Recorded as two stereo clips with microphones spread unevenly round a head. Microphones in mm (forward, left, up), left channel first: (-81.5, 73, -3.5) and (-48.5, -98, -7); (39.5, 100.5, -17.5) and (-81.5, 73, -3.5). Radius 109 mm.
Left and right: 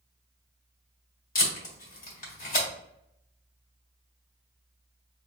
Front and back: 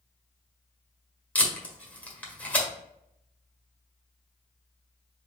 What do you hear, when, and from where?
1.4 s tape being pulled: 95° left, 1.7 m